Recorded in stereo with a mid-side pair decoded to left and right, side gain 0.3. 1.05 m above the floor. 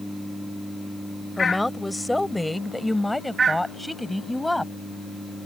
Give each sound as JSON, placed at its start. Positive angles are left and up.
{"t": 1.4, "sound": "a woman speaking", "azimuth_deg": 15}